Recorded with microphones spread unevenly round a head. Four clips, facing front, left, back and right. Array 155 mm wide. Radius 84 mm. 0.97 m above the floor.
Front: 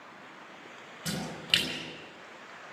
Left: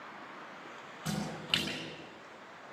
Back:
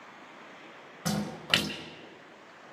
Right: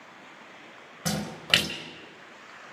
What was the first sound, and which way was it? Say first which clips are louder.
A splash: right 7 dB, back 4 dB; 100° right.